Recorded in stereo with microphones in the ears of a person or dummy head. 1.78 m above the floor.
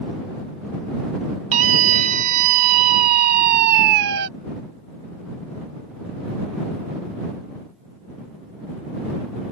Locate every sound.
1.5 s a scream: 40° right (ahead or behind); by 4.3 s 60° right (ahead or behind)